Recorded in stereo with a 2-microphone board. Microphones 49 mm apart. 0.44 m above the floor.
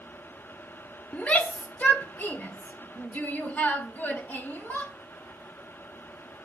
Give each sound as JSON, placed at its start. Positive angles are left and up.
{"t": 1.1, "sound": "a shout", "side_deg": 25, "distance_m": 1.4}